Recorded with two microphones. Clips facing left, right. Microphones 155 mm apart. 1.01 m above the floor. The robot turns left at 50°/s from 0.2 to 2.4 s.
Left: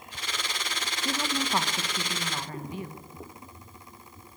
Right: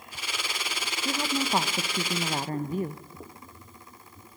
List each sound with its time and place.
1.1 s a woman speaking: 5° right, 1.0 m; by 3.0 s 75° right, 1.0 m